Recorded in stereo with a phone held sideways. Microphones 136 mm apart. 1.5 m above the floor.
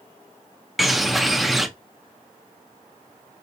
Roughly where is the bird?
Centre.